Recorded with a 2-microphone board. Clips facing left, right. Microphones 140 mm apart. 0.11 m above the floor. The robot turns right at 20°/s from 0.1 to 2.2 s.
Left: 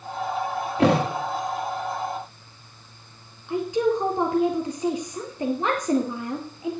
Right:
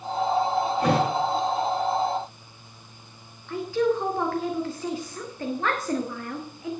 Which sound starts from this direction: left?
A thud, at 0.8 s.